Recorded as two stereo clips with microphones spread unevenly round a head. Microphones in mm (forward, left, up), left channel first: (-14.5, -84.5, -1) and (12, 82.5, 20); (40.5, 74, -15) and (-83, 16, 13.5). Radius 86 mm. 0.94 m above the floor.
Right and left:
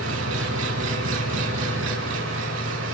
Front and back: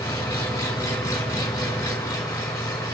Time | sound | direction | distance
0.0 | an engine running | 95° left | 5.5 m